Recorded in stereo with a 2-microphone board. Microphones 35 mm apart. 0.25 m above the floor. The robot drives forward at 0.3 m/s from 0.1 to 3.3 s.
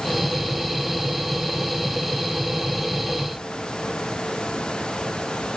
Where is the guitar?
I don't hear a guitar.